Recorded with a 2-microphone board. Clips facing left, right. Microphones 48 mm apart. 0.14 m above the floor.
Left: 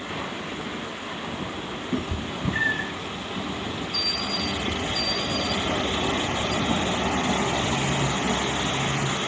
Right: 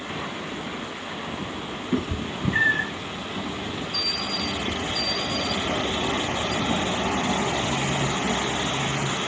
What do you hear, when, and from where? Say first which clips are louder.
1.9 s a cat meowing: right 3 dB; 25° right (ahead or behind), 1.1 m